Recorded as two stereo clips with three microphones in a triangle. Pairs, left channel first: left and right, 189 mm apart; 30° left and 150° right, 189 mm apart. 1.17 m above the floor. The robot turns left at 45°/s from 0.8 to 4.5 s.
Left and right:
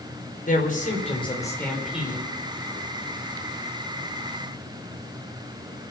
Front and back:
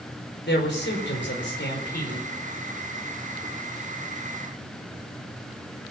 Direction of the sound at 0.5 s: 45° left.